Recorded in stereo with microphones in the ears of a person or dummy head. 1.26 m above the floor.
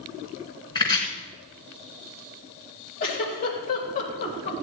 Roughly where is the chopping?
Centre.